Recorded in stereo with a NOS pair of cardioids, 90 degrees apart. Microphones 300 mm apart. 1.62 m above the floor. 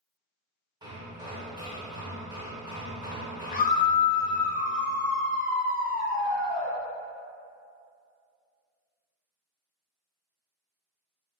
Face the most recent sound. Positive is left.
turn(degrees=30)